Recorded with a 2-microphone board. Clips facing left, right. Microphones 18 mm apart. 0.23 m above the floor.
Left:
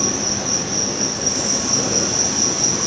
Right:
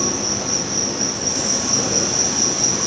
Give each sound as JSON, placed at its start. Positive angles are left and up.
{"t": 0.0, "sound": "an insect", "side_deg": 15, "distance_m": 1.8}